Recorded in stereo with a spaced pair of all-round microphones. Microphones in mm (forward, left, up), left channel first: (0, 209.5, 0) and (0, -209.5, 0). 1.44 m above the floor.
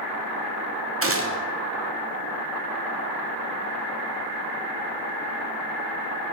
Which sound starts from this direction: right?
A gunshot, at 1.0 s.